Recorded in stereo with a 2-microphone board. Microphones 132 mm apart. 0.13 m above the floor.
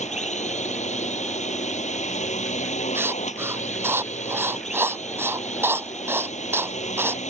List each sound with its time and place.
0.0 s a drone: 60° left (ahead or behind)
3.0 s writing: 20° right (ahead or behind)